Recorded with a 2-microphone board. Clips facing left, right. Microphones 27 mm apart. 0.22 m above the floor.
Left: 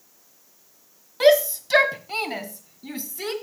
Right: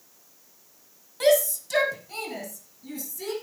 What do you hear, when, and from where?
1.2 s a shout: 25° left (ahead or behind), 1.5 m; by 3.3 s 40° left (ahead or behind), 3 m